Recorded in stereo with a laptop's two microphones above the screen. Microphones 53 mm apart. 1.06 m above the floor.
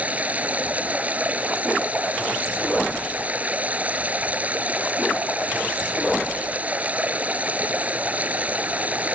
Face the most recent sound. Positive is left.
turn(degrees=-25)  # may be behind; listen again after turning